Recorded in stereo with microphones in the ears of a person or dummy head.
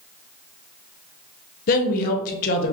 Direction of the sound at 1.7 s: 45° left (ahead or behind).